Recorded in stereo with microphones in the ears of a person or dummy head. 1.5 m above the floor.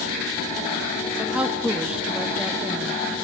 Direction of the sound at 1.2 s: 10° right (ahead or behind).